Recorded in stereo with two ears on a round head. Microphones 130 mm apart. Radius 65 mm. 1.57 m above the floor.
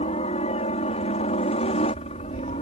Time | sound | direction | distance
0.0 | a helicopter | 45° left (ahead or behind) | ?